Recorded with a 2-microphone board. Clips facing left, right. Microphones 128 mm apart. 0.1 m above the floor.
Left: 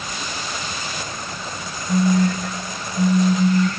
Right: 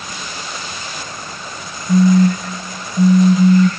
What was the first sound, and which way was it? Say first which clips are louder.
A phone buzzing: right 6 dB; 45° right (ahead or behind).